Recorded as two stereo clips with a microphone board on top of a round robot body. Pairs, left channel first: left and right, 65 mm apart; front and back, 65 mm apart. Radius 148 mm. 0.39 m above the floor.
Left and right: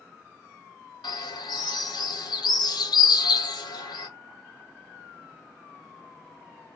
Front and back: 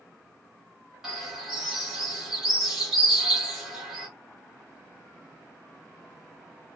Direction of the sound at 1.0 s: 95° left.